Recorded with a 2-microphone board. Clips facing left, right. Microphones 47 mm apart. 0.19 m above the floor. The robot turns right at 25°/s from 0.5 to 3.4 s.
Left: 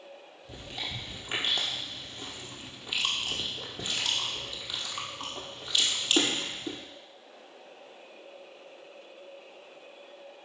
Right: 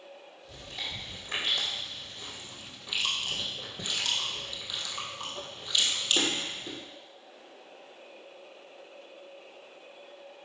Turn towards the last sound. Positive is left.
turn(degrees=15)  # may be behind; listen again after turning